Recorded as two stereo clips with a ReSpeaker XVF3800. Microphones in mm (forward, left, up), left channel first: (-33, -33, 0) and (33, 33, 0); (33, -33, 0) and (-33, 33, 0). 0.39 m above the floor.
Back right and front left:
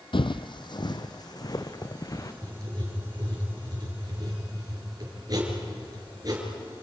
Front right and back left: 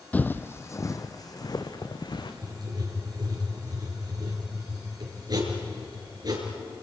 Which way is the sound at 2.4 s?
90° left.